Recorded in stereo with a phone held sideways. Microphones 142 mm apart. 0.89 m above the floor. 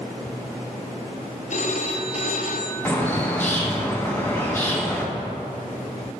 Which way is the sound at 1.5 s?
60° left (ahead or behind).